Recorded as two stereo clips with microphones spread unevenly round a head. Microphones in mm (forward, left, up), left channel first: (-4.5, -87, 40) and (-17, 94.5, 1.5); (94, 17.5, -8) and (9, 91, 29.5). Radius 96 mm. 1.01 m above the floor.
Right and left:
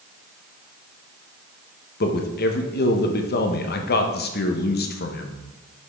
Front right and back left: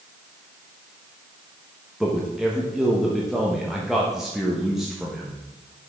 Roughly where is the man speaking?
Behind right.